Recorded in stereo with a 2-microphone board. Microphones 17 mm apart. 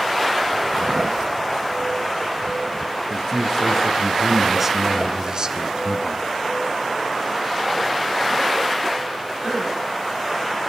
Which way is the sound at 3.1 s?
25° left (ahead or behind).